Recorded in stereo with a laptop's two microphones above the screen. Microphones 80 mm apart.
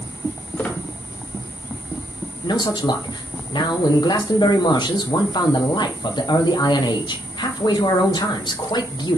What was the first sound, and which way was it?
A squeak, 20° left (ahead or behind).